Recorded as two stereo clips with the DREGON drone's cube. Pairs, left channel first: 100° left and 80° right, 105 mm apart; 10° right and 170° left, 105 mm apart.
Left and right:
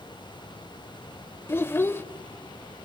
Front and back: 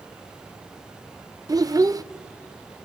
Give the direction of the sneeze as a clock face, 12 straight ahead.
I don't hear a sneeze.